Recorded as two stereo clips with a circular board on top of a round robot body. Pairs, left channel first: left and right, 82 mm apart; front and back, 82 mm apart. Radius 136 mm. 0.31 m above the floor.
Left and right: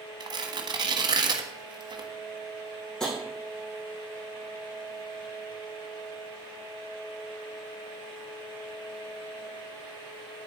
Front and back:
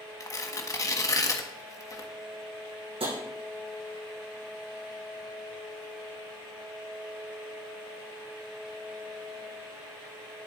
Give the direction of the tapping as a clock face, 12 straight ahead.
6 o'clock.